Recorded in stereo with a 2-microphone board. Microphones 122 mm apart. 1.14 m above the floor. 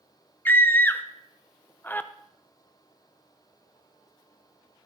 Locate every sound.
0.5 s a scream: 15° left (ahead or behind), 0.7 m